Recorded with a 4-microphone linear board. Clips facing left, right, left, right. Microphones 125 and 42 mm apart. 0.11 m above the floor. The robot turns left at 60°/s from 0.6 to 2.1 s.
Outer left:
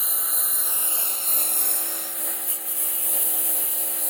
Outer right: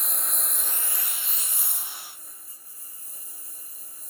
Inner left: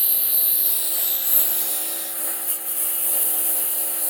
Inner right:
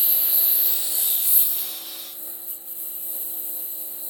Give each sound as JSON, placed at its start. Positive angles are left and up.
{"t": 0.0, "sound": "a lawn mower", "azimuth_deg": 180}